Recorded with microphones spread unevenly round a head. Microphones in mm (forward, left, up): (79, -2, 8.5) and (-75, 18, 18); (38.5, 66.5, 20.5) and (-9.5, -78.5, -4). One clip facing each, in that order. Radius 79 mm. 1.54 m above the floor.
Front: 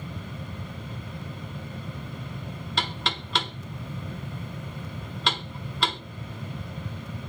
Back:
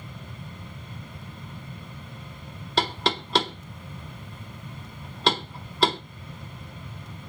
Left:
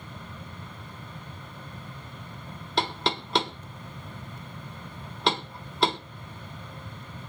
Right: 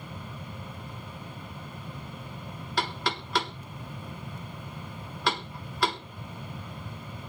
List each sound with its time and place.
2.8 s knocking: 125° left, 0.9 m